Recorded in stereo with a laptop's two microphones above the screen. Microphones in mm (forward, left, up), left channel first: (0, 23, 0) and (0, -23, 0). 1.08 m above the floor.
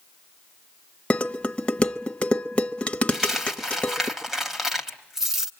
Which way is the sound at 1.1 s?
25° left (ahead or behind).